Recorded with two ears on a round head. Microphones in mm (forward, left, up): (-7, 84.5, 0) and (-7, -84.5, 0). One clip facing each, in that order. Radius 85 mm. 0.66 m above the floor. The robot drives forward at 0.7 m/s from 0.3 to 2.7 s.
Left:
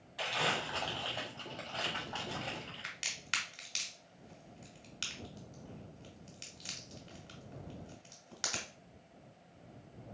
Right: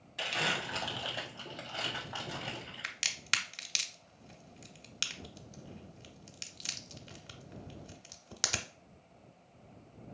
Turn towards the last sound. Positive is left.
turn(degrees=-60)  # may be behind; listen again after turning